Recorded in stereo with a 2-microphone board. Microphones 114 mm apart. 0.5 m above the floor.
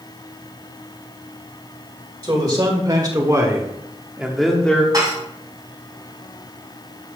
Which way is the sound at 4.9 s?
35° right (ahead or behind).